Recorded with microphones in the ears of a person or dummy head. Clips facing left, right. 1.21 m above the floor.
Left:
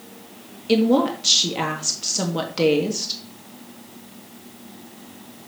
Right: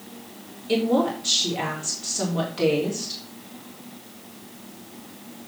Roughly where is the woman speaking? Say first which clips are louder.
Left 4 dB; left.